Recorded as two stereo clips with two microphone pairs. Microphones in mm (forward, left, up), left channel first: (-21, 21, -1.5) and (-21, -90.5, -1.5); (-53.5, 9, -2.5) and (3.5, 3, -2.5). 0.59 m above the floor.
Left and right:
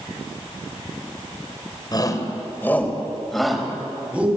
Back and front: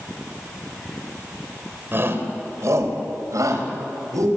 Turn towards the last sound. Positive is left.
turn(degrees=-15)